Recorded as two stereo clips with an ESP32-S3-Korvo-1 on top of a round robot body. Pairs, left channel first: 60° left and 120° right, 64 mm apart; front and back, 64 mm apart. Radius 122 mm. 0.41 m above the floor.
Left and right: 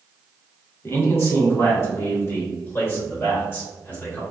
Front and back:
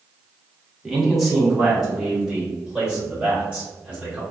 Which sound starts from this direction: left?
A man speaking, at 0.8 s.